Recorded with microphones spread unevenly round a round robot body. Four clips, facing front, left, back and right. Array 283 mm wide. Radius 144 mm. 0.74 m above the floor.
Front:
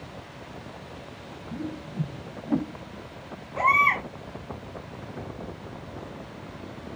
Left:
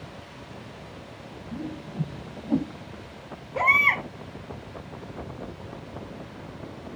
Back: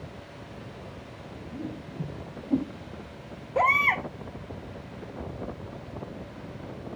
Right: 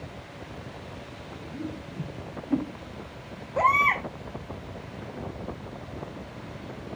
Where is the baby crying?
170° left, 2 m.